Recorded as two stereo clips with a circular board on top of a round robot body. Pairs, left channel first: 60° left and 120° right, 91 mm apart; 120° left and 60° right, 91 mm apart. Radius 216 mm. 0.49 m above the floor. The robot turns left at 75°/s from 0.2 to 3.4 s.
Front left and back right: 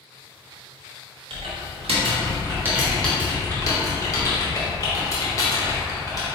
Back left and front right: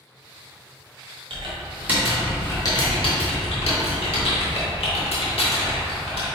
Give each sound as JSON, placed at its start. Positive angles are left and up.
{"t": 1.3, "sound": "typing on a keyboard", "azimuth_deg": -85, "distance_m": 0.8}